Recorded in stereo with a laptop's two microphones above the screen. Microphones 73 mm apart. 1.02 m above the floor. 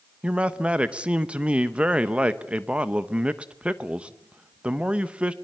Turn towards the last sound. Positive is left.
turn(degrees=-15)  # may be behind; listen again after turning